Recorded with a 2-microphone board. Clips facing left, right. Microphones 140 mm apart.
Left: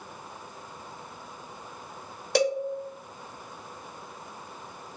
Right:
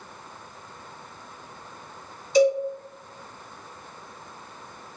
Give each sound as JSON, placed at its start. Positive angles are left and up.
{"t": 2.4, "sound": "a cowbell", "side_deg": 65, "distance_m": 0.5}